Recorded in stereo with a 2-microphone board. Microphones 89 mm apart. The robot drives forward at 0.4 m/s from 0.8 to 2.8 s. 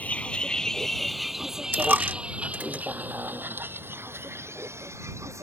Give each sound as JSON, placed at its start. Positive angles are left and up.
{"t": 0.0, "sound": "a vehicle", "side_deg": 15}
{"t": 1.7, "sound": "a dropped coin", "side_deg": -25}